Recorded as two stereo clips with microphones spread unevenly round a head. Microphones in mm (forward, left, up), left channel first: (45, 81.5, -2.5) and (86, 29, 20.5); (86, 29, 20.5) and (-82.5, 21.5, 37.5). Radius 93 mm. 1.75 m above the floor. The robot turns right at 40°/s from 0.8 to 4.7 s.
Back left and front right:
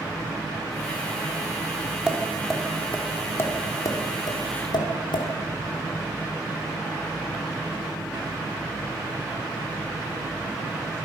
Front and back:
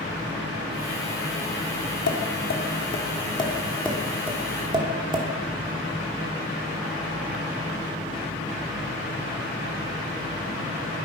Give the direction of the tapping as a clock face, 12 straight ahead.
11 o'clock.